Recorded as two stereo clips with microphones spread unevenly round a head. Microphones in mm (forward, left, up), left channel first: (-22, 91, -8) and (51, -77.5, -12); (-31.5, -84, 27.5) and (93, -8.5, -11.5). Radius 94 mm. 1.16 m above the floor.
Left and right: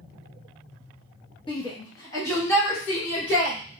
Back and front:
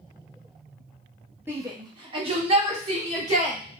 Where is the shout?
70° left, 0.7 m; by 3.6 s 30° left, 1.5 m.